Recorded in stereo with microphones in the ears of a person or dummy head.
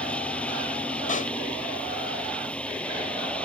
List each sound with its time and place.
0.0 s a machine running: 5° left (ahead or behind)
1.1 s a pop: 40° left (ahead or behind)